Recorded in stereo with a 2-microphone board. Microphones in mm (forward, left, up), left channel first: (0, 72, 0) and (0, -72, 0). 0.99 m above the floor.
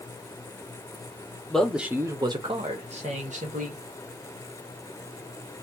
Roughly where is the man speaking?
Centre.